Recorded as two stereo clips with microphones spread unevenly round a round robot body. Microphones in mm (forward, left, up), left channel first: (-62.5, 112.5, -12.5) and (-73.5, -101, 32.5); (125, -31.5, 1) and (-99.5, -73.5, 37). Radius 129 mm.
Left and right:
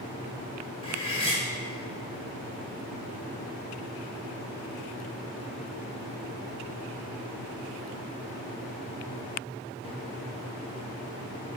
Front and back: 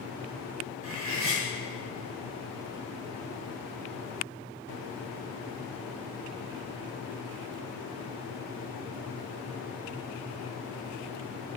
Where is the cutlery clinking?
150° left, 1.3 m.